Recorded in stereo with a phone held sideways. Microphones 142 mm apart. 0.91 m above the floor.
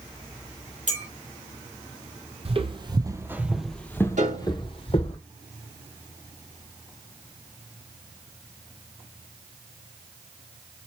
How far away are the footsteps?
About 1.2 m.